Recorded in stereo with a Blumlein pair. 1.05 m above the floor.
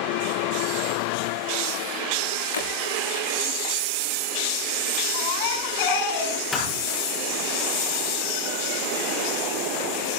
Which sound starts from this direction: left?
Breaking glass, at 2.5 s.